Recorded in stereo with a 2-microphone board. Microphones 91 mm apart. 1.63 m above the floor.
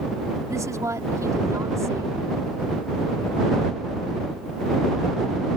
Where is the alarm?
No alarm in this recording.